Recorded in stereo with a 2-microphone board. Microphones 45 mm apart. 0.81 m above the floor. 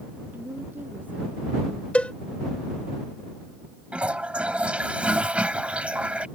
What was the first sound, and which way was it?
A woman speaking, 40° right (ahead or behind).